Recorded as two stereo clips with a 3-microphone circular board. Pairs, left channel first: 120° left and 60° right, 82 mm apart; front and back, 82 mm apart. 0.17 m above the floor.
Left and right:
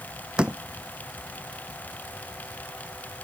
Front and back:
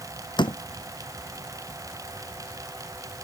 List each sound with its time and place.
0.4 s a door slam: 15° left